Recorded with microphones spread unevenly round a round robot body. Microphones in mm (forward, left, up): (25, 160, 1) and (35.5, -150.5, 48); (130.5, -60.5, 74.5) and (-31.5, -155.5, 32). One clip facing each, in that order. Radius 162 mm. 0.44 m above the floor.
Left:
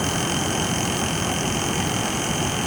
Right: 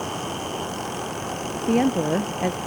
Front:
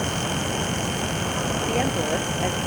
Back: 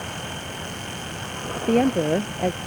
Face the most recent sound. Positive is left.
turn(degrees=-110)